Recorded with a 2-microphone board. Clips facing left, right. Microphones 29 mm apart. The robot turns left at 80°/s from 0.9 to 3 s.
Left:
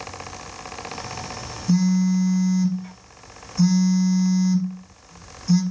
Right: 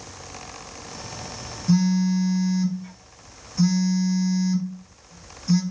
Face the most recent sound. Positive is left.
turn(degrees=-170)